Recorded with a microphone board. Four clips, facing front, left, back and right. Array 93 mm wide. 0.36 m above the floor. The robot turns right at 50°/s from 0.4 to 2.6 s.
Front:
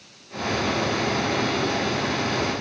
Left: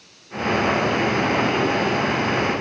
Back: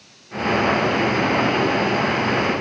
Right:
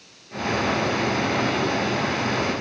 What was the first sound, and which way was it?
Only background noise.